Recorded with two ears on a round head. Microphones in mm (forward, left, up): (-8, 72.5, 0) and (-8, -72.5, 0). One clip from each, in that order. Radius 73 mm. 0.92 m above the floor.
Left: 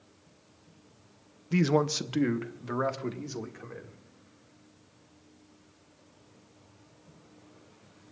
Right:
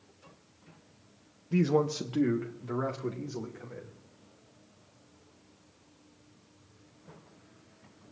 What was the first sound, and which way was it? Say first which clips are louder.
A man speaking: left 1 dB; 35° left (ahead or behind).